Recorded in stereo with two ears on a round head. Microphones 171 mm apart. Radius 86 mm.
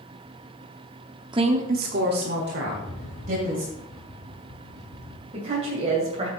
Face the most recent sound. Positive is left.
turn(degrees=-30)  # may be behind; listen again after turning